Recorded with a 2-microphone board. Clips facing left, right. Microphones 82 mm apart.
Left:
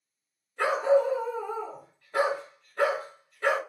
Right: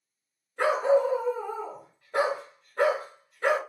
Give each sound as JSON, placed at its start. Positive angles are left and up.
{"t": 0.6, "sound": "a dog barking", "side_deg": -25, "distance_m": 1.5}